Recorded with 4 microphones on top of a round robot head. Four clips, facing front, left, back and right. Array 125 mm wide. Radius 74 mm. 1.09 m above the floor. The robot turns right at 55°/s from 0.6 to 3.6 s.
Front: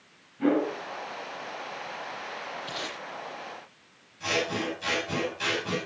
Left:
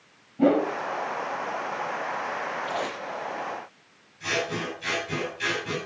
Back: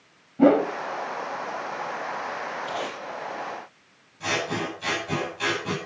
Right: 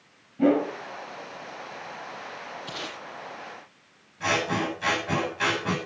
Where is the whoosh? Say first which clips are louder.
Left 1 dB, back 7 dB; 170° left, 1.9 m; by 0.7 s 175° left, 1.9 m.